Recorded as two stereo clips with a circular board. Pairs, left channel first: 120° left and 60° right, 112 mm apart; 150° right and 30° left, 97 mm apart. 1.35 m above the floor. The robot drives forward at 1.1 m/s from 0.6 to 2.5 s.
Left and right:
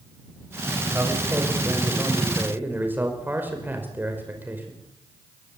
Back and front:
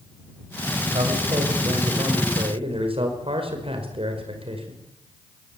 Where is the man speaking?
10° left, 7 m.